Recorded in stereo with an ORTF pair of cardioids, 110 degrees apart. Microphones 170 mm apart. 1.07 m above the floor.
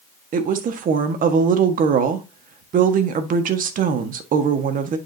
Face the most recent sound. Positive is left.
turn(degrees=-55)